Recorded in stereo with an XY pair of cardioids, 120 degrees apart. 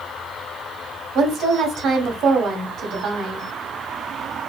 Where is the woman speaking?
65° right, 1.0 m.